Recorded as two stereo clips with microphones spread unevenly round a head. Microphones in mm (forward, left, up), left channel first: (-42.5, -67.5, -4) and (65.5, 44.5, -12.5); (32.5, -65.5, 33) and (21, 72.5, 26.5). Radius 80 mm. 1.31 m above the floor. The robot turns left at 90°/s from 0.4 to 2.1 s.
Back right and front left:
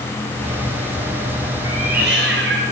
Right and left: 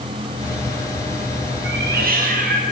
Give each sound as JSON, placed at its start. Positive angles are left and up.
{"t": 1.6, "sound": "a cat meowing", "azimuth_deg": 115, "distance_m": 4.5}